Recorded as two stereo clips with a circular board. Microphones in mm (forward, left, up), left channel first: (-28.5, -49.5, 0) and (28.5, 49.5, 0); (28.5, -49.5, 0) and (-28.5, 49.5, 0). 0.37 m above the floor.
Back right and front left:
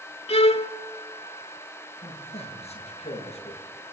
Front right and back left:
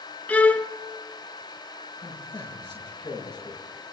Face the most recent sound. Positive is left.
turn(degrees=-105)